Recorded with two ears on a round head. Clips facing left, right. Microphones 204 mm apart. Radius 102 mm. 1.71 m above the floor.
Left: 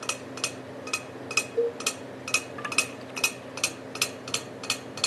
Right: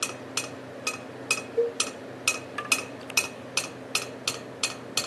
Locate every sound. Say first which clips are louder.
1.6 s a cowbell: right 1 dB; 5° left (ahead or behind), 0.6 m